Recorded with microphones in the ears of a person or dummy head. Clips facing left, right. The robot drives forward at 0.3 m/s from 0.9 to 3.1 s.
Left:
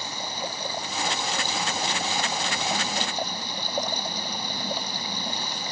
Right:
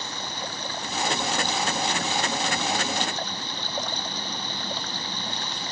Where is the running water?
10° left (ahead or behind).